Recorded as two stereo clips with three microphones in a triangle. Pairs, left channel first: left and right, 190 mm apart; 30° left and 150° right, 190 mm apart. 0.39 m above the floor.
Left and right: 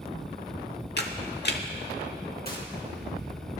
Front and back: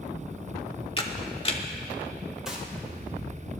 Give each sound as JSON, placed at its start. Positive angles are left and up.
{"t": 1.0, "sound": "a camera shutter", "azimuth_deg": 85, "distance_m": 1.0}
{"t": 2.5, "sound": "a gunshot", "azimuth_deg": 125, "distance_m": 3.0}